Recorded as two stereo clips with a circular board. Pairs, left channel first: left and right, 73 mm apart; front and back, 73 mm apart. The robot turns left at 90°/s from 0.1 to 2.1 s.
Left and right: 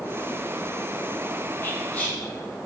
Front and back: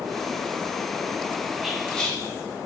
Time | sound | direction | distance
1.6 | whispering | 95° left | 0.6 m